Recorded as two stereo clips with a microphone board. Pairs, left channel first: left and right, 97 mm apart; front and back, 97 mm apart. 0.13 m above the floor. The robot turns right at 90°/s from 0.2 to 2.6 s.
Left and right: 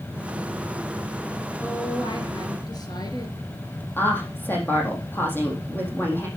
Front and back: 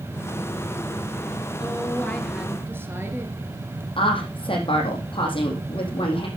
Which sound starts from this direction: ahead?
A woman speaking, at 4.0 s.